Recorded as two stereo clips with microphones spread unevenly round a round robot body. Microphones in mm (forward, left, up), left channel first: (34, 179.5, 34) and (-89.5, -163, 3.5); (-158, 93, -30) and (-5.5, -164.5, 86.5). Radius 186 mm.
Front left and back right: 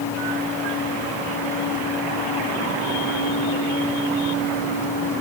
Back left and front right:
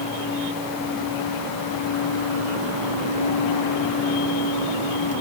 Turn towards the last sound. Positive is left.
No sound to turn to.